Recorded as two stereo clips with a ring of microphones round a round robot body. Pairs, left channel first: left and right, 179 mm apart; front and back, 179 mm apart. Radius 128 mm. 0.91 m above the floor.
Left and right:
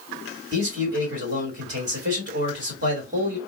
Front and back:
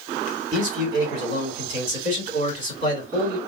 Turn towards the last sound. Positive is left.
turn(degrees=-135)